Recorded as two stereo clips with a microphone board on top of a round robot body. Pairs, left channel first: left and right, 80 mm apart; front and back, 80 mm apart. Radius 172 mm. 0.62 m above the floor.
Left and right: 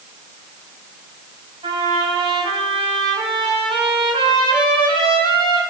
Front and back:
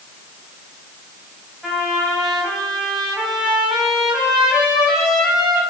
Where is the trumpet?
95° right, 4.5 m.